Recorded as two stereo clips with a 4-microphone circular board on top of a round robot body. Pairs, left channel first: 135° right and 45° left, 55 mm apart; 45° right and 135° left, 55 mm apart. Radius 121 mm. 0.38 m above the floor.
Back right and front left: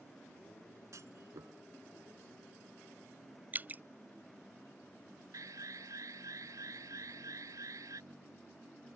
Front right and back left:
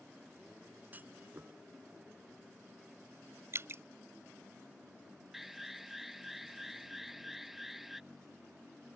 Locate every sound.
0.9 s a clunk: 75° left
3.5 s dripping: 100° left
5.3 s an alarm: 50° left